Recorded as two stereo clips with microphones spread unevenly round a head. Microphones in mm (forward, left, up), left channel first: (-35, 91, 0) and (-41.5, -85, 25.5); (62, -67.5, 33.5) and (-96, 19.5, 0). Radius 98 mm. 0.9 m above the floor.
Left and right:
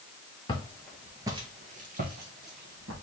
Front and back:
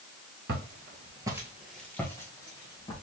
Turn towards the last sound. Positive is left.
turn(degrees=-85)